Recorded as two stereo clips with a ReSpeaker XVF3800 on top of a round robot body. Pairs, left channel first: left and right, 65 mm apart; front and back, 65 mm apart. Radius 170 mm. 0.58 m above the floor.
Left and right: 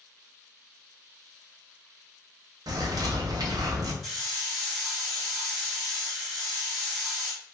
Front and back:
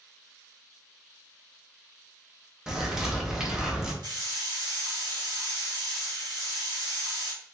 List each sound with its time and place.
2.7 s a bird: 95° right, 0.8 m
4.0 s a hiss: straight behind, 0.9 m